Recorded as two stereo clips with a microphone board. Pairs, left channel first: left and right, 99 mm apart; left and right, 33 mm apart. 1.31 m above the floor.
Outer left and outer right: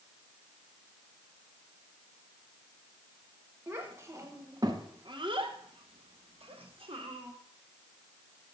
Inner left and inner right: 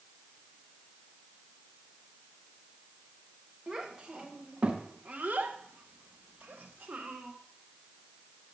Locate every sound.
3.7 s a child speaking: 25° right (ahead or behind), 1.4 m; by 7.3 s 55° right (ahead or behind), 1.2 m